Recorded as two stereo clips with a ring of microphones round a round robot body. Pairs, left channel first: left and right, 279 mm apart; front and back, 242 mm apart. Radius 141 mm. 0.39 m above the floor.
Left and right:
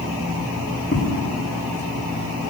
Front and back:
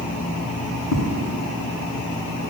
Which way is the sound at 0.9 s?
25° left.